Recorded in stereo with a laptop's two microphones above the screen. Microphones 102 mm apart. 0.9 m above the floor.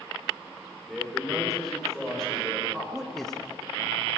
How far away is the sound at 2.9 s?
About 1.0 m.